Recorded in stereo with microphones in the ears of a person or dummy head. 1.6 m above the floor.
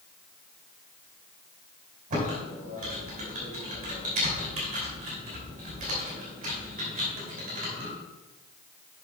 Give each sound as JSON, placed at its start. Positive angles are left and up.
{"t": 2.1, "sound": "typing on a keyboard", "side_deg": -50, "distance_m": 3.0}